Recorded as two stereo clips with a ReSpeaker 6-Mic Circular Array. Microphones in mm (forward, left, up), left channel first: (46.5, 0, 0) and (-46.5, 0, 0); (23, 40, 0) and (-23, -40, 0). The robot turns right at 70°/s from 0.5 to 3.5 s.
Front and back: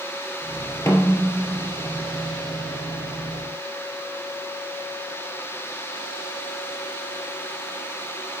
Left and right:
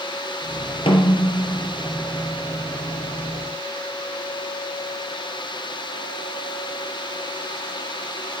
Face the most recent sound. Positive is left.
turn(degrees=-115)